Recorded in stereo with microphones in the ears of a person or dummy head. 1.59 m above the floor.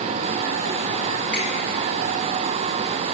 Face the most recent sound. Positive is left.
turn(degrees=-40)  # may be behind; listen again after turning